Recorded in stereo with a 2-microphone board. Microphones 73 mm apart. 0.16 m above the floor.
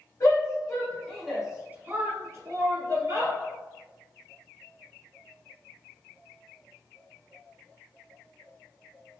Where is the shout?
50° left (ahead or behind), 1.8 m; by 3.4 s 60° right (ahead or behind), 3 m.